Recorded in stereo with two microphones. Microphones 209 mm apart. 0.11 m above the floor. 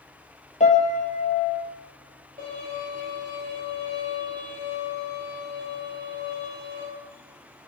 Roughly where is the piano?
Left.